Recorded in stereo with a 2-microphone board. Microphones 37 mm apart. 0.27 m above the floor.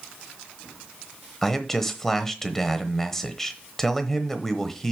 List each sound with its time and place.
1.4 s a man speaking: 10° left (ahead or behind), 1.0 m